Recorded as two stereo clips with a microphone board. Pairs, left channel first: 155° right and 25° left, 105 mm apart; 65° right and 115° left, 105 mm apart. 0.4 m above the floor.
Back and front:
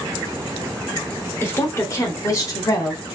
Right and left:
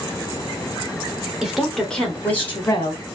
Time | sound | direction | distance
1.4 | a woman speaking | 175° right | 1.1 m